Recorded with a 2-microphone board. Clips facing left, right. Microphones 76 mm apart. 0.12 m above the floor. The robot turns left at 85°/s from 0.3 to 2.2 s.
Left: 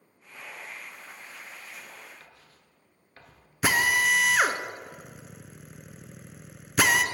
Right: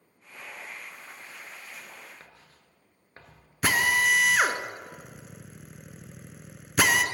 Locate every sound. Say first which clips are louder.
2.2 s writing: right 1 dB; 30° right (ahead or behind), 1.2 m
3.6 s a drill: even; 5° left (ahead or behind), 0.5 m